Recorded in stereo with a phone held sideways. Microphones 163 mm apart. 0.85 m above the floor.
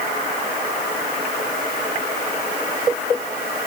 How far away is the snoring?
I don't hear snoring.